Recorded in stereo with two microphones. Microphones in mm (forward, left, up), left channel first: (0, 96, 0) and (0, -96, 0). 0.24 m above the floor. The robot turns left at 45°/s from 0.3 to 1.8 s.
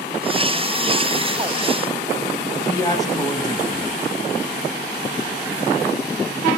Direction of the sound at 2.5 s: 20° left (ahead or behind).